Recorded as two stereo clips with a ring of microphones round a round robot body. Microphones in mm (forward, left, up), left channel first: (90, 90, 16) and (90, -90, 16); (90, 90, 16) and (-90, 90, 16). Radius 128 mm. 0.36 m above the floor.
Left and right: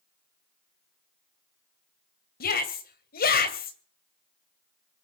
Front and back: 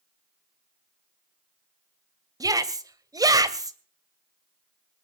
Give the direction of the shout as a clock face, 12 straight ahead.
8 o'clock.